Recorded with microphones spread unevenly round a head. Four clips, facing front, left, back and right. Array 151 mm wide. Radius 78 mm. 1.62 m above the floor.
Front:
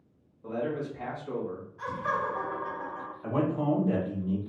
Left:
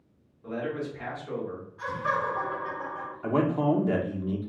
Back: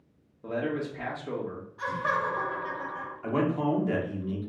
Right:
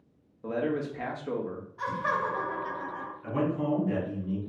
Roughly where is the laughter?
Right.